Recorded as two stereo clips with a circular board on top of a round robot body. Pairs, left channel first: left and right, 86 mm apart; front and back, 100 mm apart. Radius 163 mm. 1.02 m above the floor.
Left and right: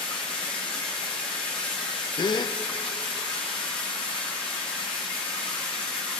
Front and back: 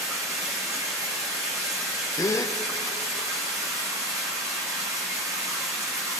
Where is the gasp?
55° left, 0.5 m.